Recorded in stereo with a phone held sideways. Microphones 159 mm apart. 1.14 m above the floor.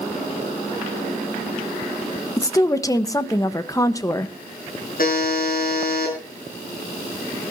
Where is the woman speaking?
20° left (ahead or behind), 1.1 m.